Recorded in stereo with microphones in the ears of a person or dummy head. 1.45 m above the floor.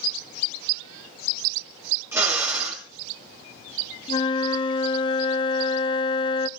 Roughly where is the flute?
Left.